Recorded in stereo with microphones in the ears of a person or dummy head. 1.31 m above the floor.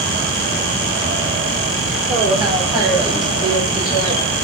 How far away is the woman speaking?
About 3 m.